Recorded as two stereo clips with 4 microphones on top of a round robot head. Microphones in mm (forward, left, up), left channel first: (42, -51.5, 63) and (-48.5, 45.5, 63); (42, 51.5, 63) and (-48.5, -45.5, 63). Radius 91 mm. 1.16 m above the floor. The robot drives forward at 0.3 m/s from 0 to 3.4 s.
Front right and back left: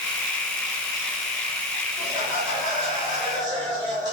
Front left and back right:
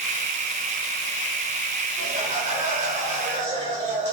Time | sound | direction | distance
2.0 | laughter | 165° right | 3.5 m